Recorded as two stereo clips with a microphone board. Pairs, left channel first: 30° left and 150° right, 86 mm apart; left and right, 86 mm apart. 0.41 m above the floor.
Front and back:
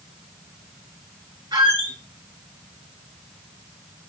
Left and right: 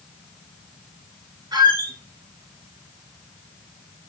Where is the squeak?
125° right, 1.1 m.